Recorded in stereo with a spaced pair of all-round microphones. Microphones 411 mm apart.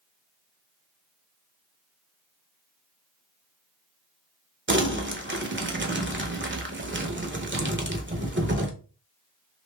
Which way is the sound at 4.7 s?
30° right (ahead or behind).